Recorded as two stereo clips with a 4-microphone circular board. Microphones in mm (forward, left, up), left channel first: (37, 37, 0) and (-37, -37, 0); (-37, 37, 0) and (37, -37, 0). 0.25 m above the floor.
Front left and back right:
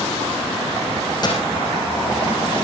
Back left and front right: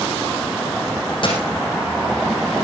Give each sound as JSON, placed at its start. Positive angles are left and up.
{"t": 1.2, "sound": "a dropped coin", "azimuth_deg": 95, "distance_m": 6.0}